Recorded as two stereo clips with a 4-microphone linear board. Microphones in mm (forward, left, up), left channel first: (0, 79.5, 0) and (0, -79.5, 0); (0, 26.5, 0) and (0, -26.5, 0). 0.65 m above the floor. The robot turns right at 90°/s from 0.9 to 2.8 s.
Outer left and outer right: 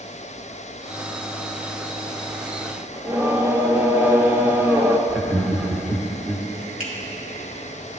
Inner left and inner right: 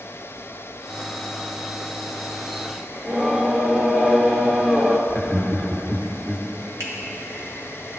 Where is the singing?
15° right (ahead or behind), 0.7 m.